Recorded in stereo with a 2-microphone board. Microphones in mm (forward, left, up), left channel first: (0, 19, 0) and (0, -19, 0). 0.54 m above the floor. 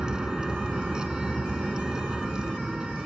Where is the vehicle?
20° right (ahead or behind).